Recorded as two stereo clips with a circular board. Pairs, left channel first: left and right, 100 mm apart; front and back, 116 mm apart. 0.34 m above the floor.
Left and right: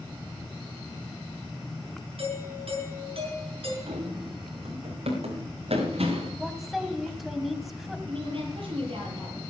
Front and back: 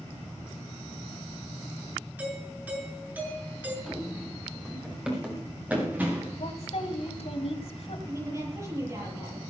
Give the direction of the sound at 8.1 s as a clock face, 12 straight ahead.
4 o'clock.